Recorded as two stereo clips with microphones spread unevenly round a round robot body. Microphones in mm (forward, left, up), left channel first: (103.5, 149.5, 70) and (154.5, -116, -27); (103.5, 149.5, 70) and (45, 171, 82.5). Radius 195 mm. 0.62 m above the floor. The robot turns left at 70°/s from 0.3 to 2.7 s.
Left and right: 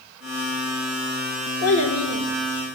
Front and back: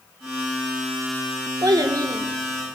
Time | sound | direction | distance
1.6 | a child speaking | 165° left | 1.3 m